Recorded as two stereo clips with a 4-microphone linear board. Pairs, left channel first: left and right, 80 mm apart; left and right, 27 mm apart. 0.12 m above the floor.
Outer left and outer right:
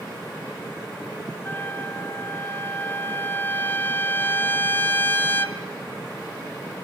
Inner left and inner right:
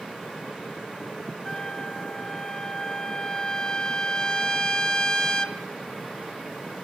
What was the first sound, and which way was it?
A trumpet, 25° left (ahead or behind).